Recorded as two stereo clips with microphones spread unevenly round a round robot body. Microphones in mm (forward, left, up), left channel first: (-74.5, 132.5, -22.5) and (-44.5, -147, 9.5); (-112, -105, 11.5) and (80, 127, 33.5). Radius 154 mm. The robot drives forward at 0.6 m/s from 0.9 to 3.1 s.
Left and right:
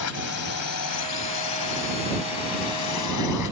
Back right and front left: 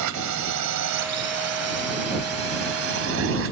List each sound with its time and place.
0.0 s a drone: 70° left; by 3.5 s 95° left